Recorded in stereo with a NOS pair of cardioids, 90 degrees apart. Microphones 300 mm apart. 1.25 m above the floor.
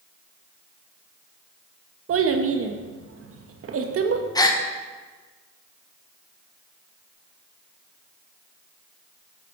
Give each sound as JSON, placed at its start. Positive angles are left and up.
{"t": 2.1, "sound": "a child speaking", "azimuth_deg": -45, "distance_m": 1.0}
{"t": 4.3, "sound": "a gasp", "azimuth_deg": 10, "distance_m": 1.0}